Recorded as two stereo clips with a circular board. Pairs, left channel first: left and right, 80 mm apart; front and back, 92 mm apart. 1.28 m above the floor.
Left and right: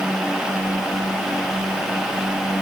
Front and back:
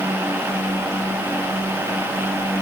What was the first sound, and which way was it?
Only background noise.